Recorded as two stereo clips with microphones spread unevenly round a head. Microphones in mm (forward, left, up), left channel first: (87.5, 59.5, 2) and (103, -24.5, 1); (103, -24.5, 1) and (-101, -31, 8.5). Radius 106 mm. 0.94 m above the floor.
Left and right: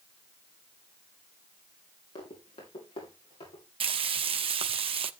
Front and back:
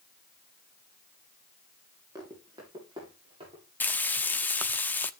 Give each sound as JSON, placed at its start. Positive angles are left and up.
{"t": 2.1, "sound": "running footsteps", "azimuth_deg": 105, "distance_m": 7.5}
{"t": 3.8, "sound": "frying", "azimuth_deg": -80, "distance_m": 0.9}